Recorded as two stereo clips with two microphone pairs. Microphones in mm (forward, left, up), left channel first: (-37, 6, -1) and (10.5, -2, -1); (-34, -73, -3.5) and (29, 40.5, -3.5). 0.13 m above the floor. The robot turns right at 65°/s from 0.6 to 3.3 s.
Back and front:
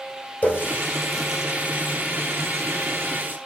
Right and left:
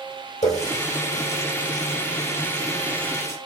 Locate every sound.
0.4 s a running tap: 140° right, 2.5 m; by 3.4 s 35° left, 2.5 m